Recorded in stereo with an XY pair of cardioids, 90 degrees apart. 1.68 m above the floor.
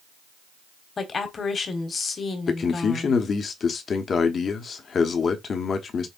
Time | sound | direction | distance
1.0 | a woman speaking | 50° left | 1.2 m
2.5 | a man speaking | 55° left | 0.9 m